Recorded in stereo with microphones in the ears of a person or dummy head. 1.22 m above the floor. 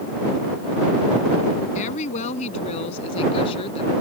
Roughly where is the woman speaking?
Left.